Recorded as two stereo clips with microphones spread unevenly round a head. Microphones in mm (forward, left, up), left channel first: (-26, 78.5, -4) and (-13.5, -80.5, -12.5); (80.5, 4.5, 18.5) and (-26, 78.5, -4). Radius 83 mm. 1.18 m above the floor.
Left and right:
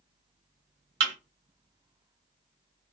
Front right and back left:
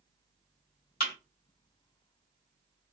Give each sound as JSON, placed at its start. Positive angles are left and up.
{"t": 1.0, "sound": "a thud", "azimuth_deg": -50, "distance_m": 1.5}